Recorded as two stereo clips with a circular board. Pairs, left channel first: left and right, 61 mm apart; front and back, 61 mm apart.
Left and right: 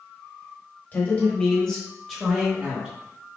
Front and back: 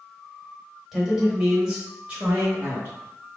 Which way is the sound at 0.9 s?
100° left.